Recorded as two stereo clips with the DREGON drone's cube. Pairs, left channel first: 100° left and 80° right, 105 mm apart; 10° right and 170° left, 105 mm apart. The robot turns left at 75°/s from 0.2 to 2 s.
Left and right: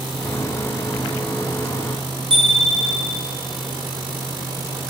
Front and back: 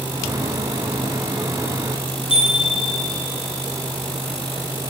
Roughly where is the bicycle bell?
Ahead right.